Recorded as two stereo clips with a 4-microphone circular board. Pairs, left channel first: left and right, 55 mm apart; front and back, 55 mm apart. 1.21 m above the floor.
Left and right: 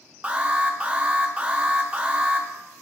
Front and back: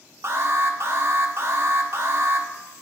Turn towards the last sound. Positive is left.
turn(degrees=-155)